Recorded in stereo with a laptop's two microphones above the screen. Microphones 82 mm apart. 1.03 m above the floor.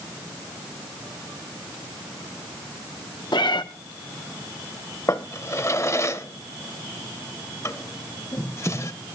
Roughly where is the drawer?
Left.